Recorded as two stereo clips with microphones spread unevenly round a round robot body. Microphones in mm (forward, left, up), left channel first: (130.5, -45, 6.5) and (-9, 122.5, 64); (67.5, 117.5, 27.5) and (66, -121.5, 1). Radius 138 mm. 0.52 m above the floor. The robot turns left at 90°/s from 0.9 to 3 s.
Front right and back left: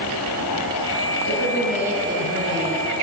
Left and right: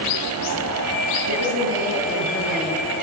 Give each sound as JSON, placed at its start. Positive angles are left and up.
{"t": 1.2, "sound": "a woman speaking", "azimuth_deg": -80, "distance_m": 6.5}